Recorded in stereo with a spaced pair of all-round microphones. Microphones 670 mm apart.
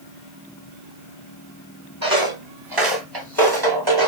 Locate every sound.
2.0 s footsteps: 30° right (ahead or behind), 1.2 m